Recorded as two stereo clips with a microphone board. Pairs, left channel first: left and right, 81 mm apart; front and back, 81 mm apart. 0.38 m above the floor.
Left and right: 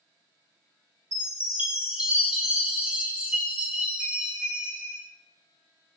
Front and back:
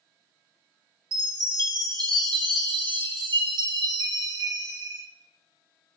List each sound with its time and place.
1.1 s a chime: 160° right, 0.6 m